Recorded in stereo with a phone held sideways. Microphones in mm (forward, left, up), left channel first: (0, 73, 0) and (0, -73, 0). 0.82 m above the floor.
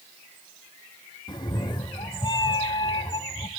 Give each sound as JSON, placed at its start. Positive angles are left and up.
{"t": 1.3, "sound": "a cat meowing", "side_deg": 30, "distance_m": 0.7}